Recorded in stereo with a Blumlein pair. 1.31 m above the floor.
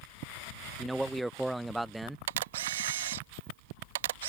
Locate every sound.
0.8 s a man speaking: 5° right
2.3 s a camera shutter: 55° right